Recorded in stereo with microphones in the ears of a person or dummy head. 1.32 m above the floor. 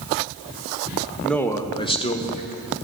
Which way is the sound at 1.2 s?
Centre (ahead or behind).